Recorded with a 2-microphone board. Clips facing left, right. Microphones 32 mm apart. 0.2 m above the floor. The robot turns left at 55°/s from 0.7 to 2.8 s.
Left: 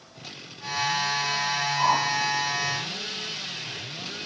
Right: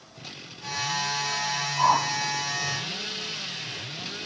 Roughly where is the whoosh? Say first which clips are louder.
Right 2 dB; centre.